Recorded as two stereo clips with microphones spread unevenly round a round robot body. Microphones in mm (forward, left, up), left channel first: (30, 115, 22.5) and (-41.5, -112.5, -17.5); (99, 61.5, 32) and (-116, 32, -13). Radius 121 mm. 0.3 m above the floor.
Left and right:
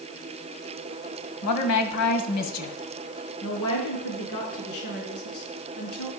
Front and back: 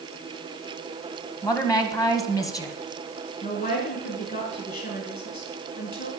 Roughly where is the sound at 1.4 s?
Left.